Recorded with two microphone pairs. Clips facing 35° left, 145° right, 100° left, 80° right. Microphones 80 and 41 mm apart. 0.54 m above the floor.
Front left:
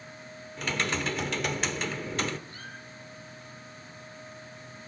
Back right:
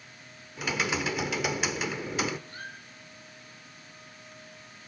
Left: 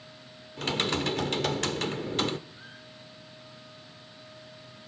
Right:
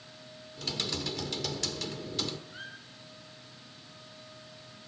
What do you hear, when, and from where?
0.6 s typing on a keyboard: 135° left, 1.4 m
2.5 s a squeak: 90° right, 7.5 m